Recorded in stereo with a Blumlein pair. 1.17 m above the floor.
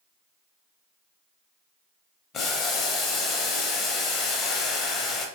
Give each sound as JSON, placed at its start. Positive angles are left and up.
{"t": 2.3, "sound": "boiling", "azimuth_deg": 25, "distance_m": 0.6}